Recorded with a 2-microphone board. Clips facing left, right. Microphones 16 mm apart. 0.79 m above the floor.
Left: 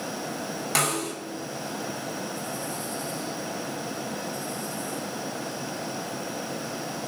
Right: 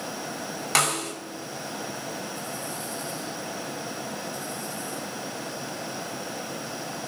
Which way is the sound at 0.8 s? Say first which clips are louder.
Right 2 dB; 20° right (ahead or behind).